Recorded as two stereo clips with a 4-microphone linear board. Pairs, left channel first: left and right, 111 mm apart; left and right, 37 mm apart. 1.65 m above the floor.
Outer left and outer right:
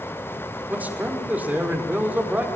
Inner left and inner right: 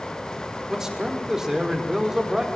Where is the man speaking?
15° right (ahead or behind), 5 m.